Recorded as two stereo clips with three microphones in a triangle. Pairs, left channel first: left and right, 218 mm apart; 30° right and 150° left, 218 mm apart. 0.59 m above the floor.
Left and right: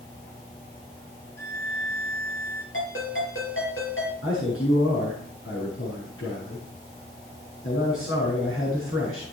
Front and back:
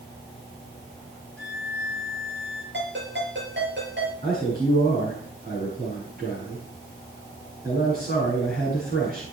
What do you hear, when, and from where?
1.4 s a violin: 170° left, 3 m
2.7 s a ringtone: 115° left, 6 m
4.2 s a man speaking: 105° left, 6 m